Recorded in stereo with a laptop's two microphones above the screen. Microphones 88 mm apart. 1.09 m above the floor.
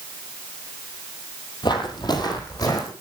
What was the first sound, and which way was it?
Footsteps, 55° left (ahead or behind).